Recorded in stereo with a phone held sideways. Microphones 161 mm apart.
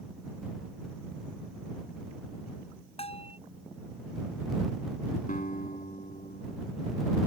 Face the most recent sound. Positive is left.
turn(degrees=60)  # may be behind; listen again after turning